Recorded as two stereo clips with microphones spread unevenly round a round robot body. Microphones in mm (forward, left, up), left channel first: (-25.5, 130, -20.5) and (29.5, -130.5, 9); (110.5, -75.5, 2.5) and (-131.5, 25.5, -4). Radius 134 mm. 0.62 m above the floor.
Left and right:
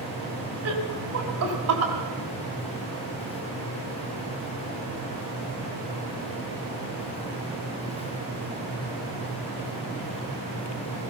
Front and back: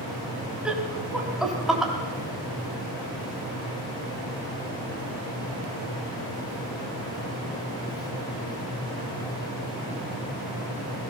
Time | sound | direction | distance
0.7 | laughter | 115° right | 4 m